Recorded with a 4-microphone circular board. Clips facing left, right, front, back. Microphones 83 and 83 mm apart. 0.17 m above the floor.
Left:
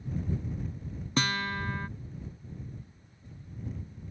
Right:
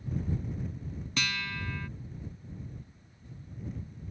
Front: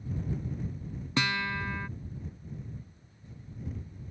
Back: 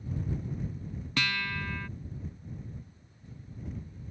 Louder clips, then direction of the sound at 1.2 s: Left 6 dB, front 3 dB; 60° left.